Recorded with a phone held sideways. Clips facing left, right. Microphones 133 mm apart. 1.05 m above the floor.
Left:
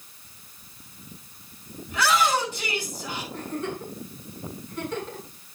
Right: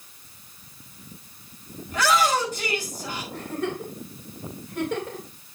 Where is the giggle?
75° right (ahead or behind), 3.5 m.